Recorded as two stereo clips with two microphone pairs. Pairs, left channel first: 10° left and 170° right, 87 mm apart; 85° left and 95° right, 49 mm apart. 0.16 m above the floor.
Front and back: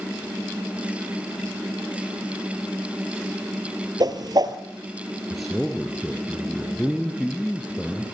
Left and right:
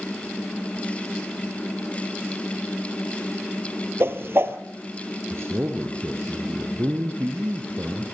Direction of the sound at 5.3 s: 75° right.